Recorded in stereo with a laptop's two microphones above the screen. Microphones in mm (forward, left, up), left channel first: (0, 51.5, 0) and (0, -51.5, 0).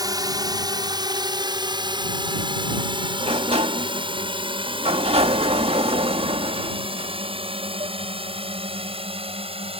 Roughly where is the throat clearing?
I don't hear throat clearing.